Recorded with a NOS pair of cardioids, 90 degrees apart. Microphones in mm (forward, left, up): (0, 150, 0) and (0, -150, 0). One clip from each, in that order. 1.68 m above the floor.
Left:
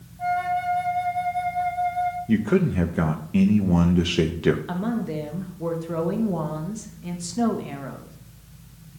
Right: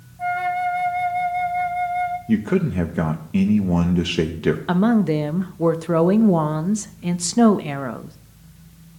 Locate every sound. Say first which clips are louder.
0.2 s a flute: right 2 dB; 10° right, 0.9 m
2.3 s a man speaking: right 1 dB; 5° right, 0.5 m
4.7 s a woman speaking: right 9 dB; 45° right, 0.6 m